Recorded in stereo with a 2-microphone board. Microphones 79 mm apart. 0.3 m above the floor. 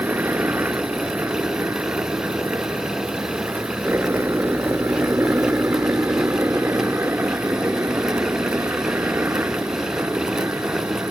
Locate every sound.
0.0 s a helicopter: 30° right (ahead or behind)